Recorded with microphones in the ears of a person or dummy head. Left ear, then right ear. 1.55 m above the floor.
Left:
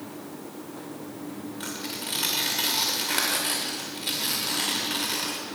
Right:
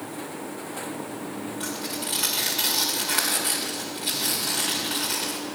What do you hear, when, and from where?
1.6 s tearing paper: centre (ahead or behind), 2 m